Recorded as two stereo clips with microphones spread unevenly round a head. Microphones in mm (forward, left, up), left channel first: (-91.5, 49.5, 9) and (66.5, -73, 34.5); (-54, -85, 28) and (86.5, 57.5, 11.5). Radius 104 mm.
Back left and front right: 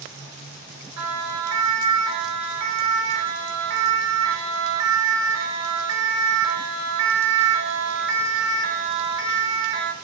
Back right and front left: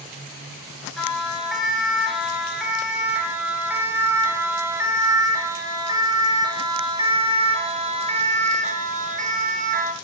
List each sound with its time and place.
1.0 s a siren: 45° right, 10 m; by 9.9 s straight ahead, 6 m